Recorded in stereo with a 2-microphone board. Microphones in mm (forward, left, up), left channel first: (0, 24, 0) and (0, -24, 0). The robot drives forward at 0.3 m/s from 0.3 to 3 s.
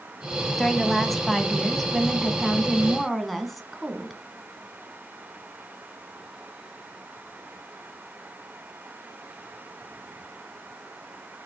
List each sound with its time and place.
0.6 s a woman speaking: 5° left (ahead or behind), 1.2 m